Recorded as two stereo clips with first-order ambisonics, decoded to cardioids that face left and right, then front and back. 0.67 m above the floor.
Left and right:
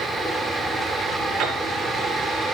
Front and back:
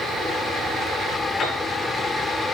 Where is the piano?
60° right, 4.5 m.